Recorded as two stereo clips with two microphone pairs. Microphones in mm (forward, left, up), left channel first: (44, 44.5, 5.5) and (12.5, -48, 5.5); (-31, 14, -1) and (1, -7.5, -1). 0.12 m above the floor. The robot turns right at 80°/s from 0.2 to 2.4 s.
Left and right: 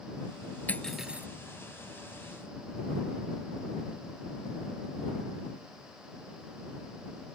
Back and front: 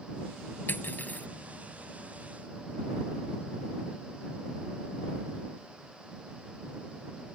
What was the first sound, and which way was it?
Cutlery clinking, 140° left.